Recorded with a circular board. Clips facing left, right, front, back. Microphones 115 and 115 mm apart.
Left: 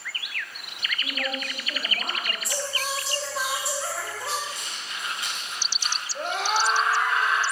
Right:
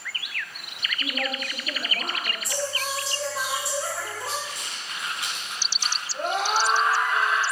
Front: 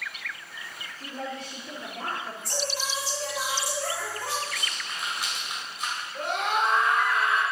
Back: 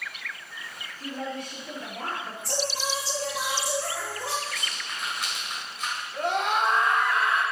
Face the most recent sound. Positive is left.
turn(degrees=-135)